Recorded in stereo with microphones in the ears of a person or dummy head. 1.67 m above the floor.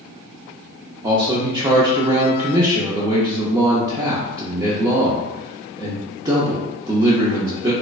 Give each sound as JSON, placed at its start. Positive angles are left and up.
{"t": 1.0, "sound": "a man speaking", "side_deg": -20, "distance_m": 0.5}